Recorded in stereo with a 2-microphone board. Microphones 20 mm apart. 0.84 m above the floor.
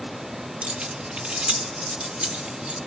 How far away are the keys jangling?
About 1.1 m.